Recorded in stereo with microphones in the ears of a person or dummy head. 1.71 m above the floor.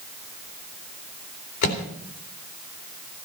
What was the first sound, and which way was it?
A microwave, 45° left (ahead or behind).